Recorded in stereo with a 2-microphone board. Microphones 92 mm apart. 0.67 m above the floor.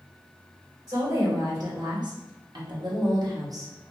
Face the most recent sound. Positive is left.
turn(degrees=-30)  # may be behind; listen again after turning